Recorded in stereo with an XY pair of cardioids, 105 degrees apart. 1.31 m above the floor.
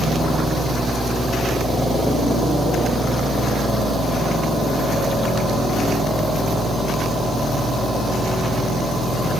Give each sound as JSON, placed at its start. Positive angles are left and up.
{"t": 0.0, "sound": "a fan", "azimuth_deg": -20}